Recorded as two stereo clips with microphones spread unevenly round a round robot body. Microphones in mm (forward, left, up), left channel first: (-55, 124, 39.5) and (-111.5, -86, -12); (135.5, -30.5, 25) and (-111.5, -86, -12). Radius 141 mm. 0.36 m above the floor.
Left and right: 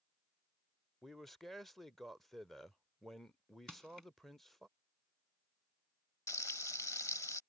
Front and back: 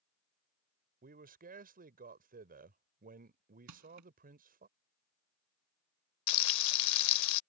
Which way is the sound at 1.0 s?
Straight behind.